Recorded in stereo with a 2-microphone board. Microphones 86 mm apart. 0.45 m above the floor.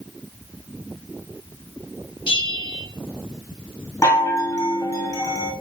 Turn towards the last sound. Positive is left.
turn(degrees=35)  # may be behind; listen again after turning